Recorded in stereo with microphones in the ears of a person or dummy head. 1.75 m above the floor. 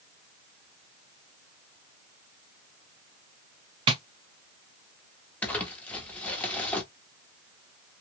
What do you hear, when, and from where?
3.9 s tapping: 30° right (ahead or behind), 0.7 m
5.4 s crumpling: 5° left (ahead or behind), 0.8 m